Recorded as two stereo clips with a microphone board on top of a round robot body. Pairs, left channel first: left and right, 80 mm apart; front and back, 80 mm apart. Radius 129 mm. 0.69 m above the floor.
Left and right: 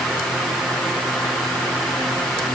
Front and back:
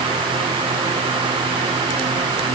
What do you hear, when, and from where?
Only background noise.